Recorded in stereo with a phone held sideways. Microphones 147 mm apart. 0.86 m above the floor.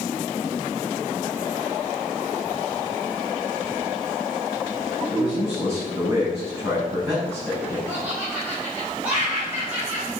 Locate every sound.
5.1 s a man speaking: 15° right (ahead or behind), 5.5 m
7.9 s laughter: 10° right (ahead or behind), 5 m